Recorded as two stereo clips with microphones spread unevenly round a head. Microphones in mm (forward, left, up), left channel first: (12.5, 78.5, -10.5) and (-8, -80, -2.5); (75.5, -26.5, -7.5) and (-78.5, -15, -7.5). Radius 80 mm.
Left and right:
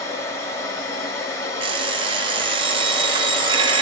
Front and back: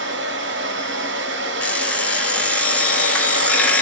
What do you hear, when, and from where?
0.0 s a machine running: 160° left, 0.8 m
1.6 s an alarm clock: 80° right, 0.5 m